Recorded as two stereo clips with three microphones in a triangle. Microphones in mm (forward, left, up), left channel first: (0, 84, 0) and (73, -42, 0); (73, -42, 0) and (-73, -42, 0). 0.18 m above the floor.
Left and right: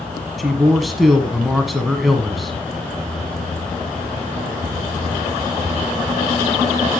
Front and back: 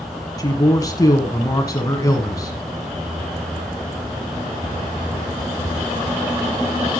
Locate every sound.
0.4 s a man speaking: 30° left, 1.5 m